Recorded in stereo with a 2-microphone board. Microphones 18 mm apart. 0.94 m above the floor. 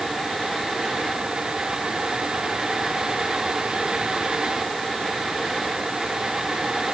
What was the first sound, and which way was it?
Only background noise.